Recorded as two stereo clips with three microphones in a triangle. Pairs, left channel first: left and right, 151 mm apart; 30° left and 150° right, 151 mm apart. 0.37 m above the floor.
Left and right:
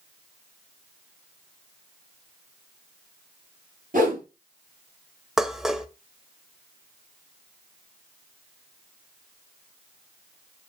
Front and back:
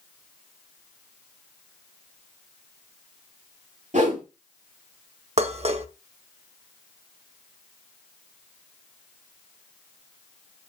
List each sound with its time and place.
3.9 s a whoosh: 110° right, 5.5 m
5.4 s dishes clattering: 175° right, 0.8 m